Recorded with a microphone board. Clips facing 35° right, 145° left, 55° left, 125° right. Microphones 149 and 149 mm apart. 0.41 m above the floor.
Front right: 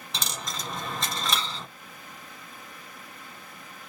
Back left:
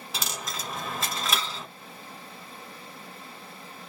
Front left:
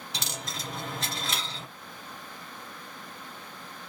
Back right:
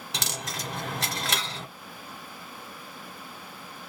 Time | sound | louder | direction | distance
0.1 | a dropped coin | even, back right 3 dB | 130° right | 0.8 m